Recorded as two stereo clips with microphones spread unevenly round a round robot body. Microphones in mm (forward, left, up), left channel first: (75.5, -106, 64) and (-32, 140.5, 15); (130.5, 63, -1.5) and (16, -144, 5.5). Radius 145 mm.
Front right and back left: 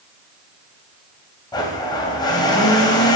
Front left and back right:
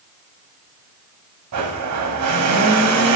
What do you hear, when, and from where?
1.5 s a blender: 145° right, 1.0 m